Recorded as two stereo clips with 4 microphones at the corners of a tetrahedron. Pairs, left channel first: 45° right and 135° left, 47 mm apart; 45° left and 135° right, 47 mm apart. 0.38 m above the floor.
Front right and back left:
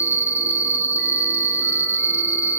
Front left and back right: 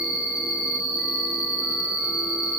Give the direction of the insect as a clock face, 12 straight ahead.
7 o'clock.